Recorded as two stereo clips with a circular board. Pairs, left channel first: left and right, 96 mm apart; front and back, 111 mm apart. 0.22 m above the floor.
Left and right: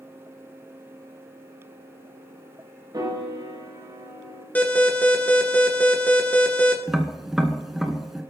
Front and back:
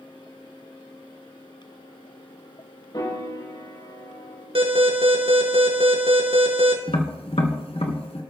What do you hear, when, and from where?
2.9 s a piano: 45° right, 6 m
4.5 s an alarm: 160° left, 2.5 m
6.9 s tapping: 5° right, 1.6 m